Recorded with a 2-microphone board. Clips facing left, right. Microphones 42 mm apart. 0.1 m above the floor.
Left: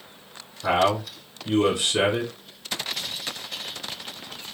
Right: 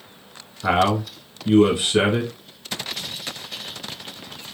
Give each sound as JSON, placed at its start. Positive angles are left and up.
{"t": 0.6, "sound": "a man speaking", "side_deg": -20, "distance_m": 1.3}